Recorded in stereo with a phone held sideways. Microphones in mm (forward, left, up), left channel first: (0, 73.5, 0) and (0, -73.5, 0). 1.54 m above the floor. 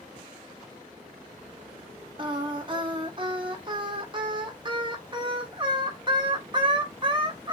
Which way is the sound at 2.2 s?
30° right (ahead or behind).